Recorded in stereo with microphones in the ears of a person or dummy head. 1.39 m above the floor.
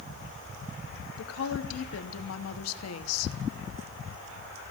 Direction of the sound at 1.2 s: 80° left.